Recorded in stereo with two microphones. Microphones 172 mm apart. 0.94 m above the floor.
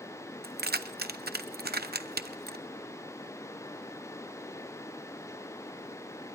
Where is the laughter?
No laughter in this recording.